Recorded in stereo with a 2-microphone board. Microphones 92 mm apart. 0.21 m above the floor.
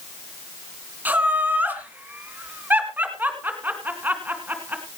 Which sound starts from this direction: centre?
Laughter, at 1.1 s.